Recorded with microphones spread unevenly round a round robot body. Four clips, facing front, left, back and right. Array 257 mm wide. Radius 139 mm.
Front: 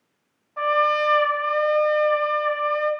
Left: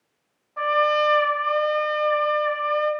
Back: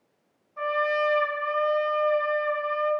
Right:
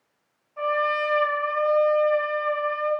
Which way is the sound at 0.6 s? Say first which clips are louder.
Left 4 dB, front 5 dB; 25° left.